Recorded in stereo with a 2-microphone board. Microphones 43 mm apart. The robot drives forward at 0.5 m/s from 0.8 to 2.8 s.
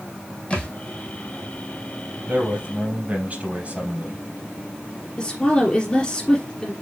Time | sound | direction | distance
0.5 | a thud | 20° left (ahead or behind) | 2.5 m
2.3 | a man speaking | 35° right (ahead or behind) | 3.5 m
5.2 | a woman speaking | 20° left (ahead or behind) | 3 m